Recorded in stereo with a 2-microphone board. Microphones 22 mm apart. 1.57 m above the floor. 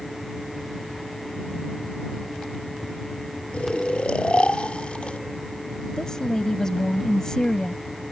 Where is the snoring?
50° left (ahead or behind).